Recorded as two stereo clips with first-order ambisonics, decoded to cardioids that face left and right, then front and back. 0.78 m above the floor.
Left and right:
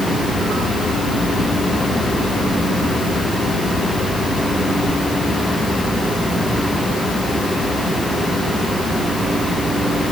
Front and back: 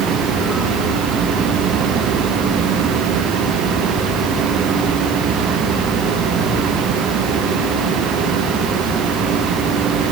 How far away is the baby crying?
No baby crying in this recording.